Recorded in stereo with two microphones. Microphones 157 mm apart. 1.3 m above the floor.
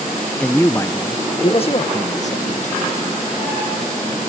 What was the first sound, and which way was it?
A man speaking, 5° left (ahead or behind).